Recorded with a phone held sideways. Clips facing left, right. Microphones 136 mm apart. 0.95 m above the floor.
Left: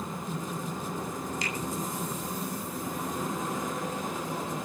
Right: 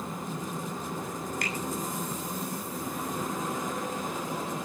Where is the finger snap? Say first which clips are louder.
Even; 60° right (ahead or behind), 9 m.